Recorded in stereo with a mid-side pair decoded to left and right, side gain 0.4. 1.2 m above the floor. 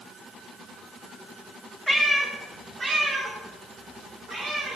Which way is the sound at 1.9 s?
Straight ahead.